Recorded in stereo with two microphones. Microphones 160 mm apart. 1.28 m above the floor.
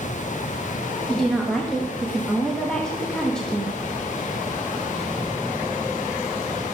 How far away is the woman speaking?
About 1.6 m.